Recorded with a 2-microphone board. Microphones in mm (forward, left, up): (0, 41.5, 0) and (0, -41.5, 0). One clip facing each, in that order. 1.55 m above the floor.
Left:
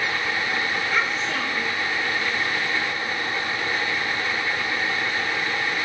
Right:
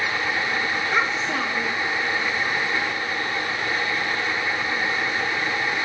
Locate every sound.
0.9 s a child speaking: 25° right (ahead or behind), 1.3 m